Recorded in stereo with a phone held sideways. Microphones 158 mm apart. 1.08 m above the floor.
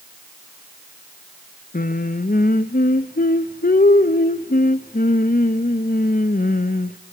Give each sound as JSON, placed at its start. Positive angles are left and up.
{"t": 1.7, "sound": "singing", "side_deg": 70, "distance_m": 0.6}